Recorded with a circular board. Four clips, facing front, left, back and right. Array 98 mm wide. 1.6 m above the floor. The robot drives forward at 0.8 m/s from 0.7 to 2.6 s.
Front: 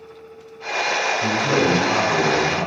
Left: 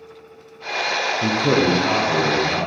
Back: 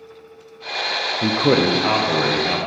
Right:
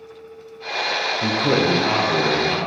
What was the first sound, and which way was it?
A man speaking, 170° left.